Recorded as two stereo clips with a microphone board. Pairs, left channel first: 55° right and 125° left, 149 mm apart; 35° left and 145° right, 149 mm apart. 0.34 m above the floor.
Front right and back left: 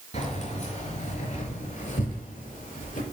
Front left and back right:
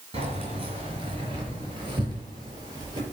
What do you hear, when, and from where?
0.1 s keys jangling: 95° right, 4.5 m; by 3.0 s 85° right, 5.5 m